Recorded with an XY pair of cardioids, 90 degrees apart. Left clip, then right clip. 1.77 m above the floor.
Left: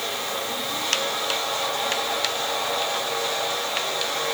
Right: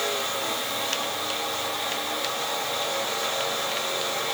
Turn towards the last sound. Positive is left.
No sound to turn to.